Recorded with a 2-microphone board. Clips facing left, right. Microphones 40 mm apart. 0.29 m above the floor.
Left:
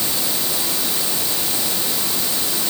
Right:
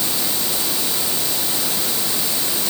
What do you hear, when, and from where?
Only background noise.